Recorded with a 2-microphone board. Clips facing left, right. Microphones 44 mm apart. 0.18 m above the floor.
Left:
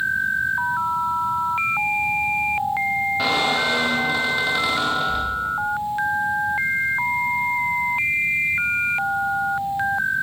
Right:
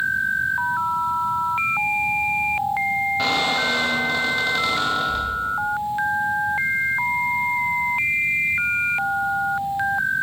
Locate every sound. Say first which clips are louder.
3.2 s a squeak: left 1 dB; 5° left (ahead or behind), 4 m